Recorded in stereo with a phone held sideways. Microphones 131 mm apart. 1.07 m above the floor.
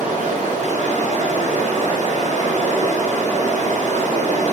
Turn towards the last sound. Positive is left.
turn(degrees=-70)  # may be behind; listen again after turning